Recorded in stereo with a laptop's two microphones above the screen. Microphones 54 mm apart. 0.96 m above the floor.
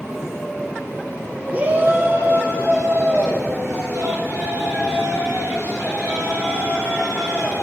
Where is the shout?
30° right (ahead or behind), 1.3 m; by 7.5 s 65° right (ahead or behind), 6.5 m.